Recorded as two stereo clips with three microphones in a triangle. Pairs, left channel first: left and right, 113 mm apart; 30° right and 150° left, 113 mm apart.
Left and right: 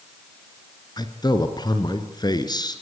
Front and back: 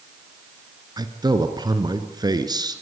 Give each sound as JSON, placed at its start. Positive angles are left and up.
{"t": 1.0, "sound": "a man speaking", "azimuth_deg": 120, "distance_m": 2.5}